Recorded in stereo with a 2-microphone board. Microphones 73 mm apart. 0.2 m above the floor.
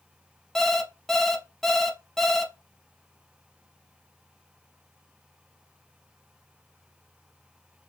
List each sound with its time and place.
0.6 s an alarm clock: 5° left (ahead or behind), 0.6 m